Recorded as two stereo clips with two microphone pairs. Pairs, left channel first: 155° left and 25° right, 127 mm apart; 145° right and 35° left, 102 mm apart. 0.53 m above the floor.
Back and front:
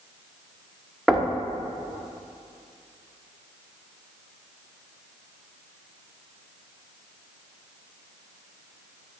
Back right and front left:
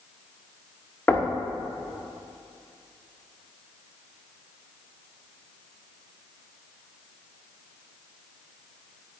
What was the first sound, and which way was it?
Knocking, 105° right.